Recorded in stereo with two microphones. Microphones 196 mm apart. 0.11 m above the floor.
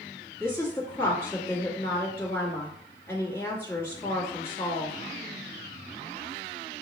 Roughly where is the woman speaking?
Centre.